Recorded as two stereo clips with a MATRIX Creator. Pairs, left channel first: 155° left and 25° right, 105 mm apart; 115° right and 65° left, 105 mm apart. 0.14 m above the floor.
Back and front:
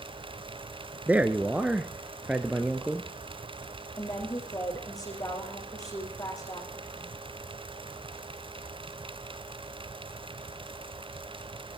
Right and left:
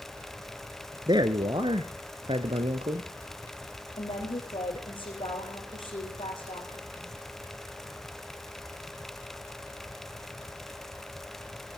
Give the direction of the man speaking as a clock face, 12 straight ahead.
10 o'clock.